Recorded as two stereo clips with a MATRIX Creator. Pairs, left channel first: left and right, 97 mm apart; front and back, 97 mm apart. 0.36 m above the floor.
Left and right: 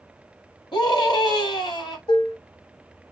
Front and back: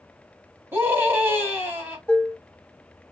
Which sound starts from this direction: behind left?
A scream, at 0.7 s.